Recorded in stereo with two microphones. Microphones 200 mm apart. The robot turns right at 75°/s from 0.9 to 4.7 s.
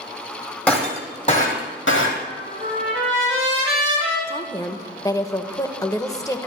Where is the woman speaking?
25° left (ahead or behind), 0.9 m; by 6.5 s 15° left (ahead or behind), 0.9 m.